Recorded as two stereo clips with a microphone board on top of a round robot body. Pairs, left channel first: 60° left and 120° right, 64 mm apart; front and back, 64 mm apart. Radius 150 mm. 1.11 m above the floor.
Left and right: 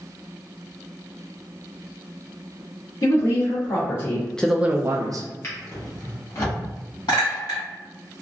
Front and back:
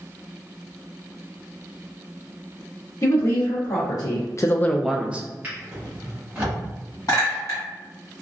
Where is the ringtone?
No ringtone in this recording.